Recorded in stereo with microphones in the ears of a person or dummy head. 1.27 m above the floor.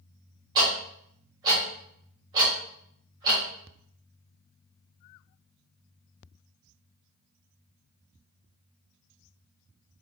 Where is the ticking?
25° right (ahead or behind), 1.2 m.